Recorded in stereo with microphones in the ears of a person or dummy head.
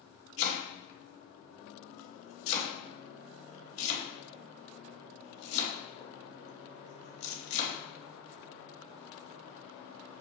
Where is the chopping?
35° left (ahead or behind), 1.3 m.